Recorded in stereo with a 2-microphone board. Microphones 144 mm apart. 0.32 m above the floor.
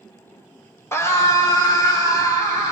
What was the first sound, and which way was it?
A scream, 20° left (ahead or behind).